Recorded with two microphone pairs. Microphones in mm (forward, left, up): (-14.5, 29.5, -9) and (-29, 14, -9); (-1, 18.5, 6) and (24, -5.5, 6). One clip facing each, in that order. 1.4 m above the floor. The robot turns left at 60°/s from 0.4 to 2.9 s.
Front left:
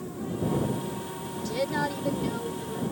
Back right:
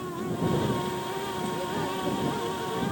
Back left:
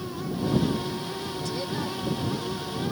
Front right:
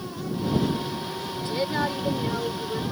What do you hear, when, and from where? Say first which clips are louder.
1.4 s a woman speaking: front left 6 dB, front right 7 dB; 15° left; by 2.8 s 70° right